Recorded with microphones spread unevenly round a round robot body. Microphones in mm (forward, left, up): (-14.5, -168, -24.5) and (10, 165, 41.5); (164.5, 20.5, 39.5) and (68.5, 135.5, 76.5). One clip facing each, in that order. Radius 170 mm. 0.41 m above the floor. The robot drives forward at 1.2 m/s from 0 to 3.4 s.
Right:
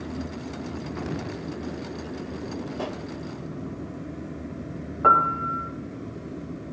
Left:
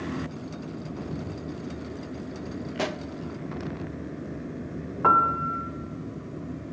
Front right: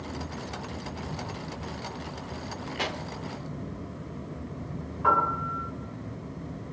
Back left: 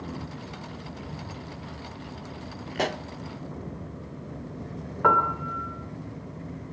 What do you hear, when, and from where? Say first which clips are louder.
2.8 s a pop: left 1 dB, back left 7 dB; 85° left, 0.7 m; by 3.0 s 125° left, 0.7 m
5.0 s a piano: right 2 dB, back left 3 dB; 155° left, 1.8 m